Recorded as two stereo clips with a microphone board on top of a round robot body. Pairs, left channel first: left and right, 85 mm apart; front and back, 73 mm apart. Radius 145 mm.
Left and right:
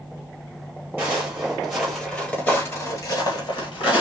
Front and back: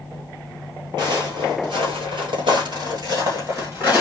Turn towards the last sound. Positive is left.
turn(degrees=110)